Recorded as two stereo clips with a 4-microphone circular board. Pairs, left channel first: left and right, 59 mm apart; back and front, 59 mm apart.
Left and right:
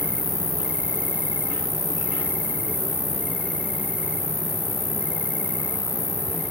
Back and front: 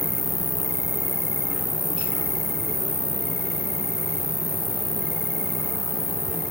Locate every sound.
0.0 s an insect: 35° right